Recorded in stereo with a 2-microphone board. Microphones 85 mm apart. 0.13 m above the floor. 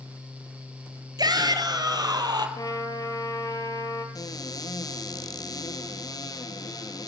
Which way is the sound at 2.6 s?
45° left (ahead or behind).